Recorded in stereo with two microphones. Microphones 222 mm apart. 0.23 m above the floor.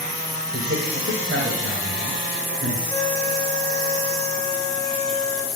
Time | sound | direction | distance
0.5 | a man speaking | 50° right (ahead or behind) | 5 m
2.9 | a flute | 5° left (ahead or behind) | 2.5 m